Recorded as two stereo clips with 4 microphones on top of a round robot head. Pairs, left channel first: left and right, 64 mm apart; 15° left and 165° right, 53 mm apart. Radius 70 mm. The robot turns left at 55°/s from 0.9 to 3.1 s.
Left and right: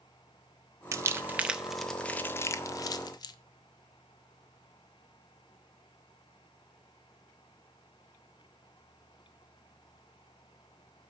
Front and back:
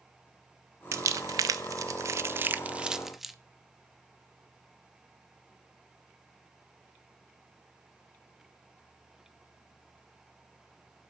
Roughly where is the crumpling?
Behind right.